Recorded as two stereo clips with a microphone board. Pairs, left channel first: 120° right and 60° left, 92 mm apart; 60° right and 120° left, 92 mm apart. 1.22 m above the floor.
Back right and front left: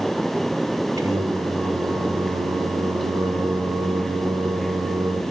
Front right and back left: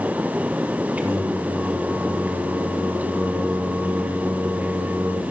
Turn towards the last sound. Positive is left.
turn(degrees=55)